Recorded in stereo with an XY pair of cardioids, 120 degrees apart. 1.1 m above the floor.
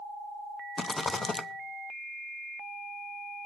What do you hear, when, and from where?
0.8 s a rattle: 25° left, 0.9 m